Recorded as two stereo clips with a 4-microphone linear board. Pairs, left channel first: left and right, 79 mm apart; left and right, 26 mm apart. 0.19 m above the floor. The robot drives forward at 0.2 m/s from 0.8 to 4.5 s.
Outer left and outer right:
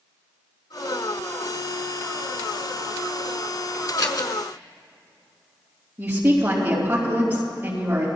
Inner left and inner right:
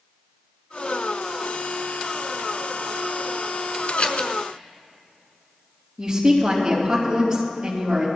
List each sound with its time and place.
4.0 s scissors: 55° left (ahead or behind), 1.2 m
6.0 s a woman speaking: 25° right (ahead or behind), 4.5 m